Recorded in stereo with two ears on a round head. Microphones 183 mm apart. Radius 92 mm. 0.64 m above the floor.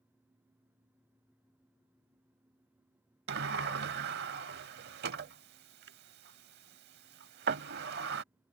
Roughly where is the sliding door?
Right.